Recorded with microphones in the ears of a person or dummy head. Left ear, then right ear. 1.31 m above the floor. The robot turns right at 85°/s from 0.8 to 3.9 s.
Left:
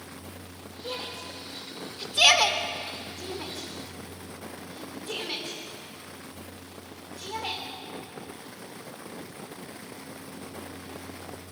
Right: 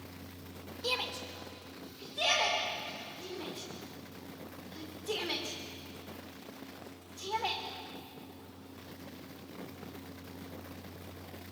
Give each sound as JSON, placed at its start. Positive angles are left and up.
{"t": 0.8, "sound": "a shout", "side_deg": -65, "distance_m": 3.5}